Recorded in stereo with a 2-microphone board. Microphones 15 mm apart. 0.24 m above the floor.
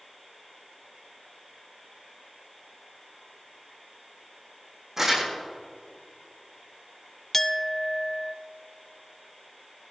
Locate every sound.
5.0 s crumpling: 25° right (ahead or behind), 5 m
7.3 s a clink: 20° left (ahead or behind), 0.5 m